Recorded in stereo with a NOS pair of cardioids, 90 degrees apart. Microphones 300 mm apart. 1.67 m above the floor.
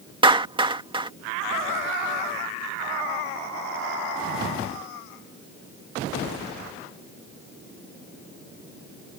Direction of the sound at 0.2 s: 15° right.